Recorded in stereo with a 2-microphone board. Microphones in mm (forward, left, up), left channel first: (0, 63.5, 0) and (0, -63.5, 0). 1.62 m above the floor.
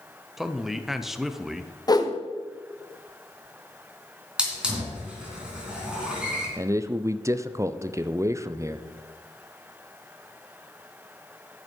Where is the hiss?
10° right (ahead or behind), 3 m.